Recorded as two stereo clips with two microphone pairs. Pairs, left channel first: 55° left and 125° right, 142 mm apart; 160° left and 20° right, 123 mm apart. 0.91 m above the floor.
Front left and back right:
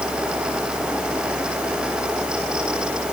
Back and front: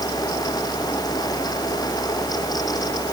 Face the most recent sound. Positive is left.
No sound to turn to.